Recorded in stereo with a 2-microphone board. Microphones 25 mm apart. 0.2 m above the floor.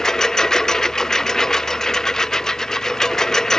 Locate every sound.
0.0 s a lawn mower: 20° left (ahead or behind)